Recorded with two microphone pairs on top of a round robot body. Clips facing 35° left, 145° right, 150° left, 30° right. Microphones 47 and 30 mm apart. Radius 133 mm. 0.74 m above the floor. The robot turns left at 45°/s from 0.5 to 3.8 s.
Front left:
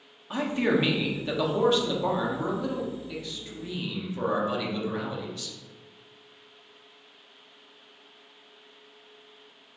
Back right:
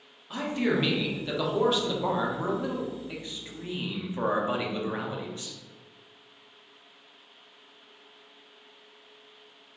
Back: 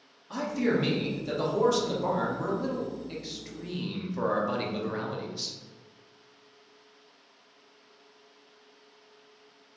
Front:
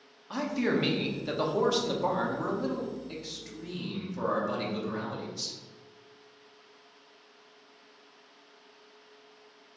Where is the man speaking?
5° right, 1.1 m; by 5.5 s 155° right, 1.1 m.